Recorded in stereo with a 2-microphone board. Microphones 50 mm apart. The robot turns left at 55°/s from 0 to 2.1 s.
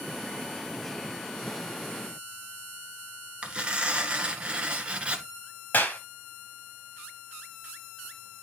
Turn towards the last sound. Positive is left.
turn(degrees=40)  # may be behind; listen again after turning